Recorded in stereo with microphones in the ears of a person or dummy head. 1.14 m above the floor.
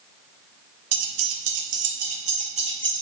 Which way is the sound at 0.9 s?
85° right.